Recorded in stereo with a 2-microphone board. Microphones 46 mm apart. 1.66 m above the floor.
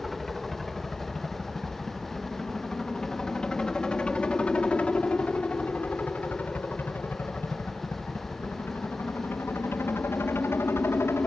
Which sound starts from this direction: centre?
A helicopter, at 0.0 s.